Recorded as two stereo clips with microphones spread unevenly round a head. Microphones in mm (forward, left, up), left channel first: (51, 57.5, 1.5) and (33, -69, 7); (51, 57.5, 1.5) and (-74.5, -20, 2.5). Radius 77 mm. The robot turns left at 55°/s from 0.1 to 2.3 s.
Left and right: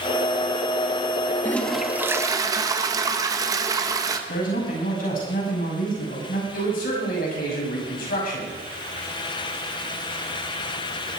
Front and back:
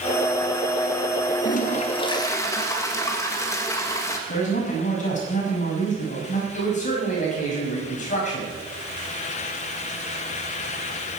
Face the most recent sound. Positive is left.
turn(degrees=70)